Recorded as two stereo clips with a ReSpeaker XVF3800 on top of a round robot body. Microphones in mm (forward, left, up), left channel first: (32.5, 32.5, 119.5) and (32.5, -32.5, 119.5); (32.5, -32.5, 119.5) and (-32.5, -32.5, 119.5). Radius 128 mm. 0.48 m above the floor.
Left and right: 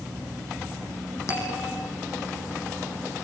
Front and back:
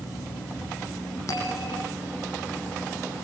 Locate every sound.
1.3 s a bell: 45° left, 8.5 m